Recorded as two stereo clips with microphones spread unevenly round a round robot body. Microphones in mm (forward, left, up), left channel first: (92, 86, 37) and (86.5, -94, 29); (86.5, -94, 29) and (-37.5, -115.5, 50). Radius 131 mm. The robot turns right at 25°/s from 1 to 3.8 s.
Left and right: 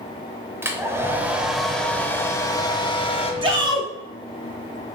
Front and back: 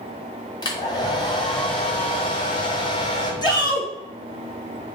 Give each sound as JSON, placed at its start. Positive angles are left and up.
{"t": 0.6, "sound": "a hair dryer", "azimuth_deg": -20, "distance_m": 0.9}
{"t": 3.4, "sound": "a shout", "azimuth_deg": -35, "distance_m": 1.9}